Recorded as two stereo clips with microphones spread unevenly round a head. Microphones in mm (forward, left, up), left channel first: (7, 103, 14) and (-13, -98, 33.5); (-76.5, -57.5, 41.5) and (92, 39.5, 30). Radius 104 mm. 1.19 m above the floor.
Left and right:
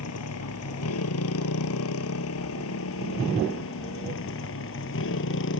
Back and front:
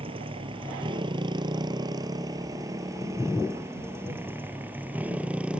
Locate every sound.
0.0 s a motorcycle: 95° left; by 5.6 s 115° left